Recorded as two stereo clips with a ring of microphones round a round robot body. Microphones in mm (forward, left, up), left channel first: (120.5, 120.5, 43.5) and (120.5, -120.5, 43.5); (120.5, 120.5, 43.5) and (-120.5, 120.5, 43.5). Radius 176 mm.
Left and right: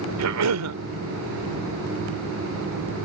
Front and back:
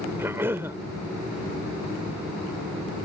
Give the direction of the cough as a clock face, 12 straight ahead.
3 o'clock.